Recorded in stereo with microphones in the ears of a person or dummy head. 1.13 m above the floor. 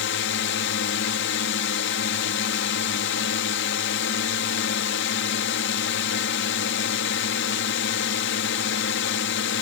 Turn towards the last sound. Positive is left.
turn(degrees=55)  # may be behind; listen again after turning